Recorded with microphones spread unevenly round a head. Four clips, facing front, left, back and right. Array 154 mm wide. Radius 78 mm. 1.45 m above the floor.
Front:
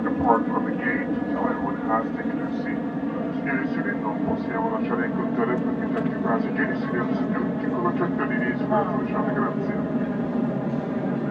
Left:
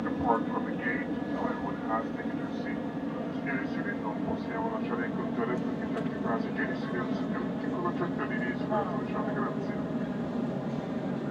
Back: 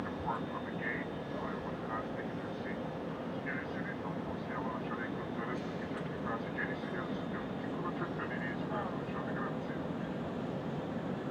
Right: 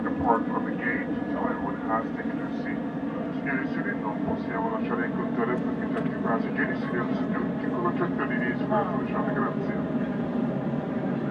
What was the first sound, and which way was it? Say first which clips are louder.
An aircraft: right 4 dB, front 17 dB; 15° right.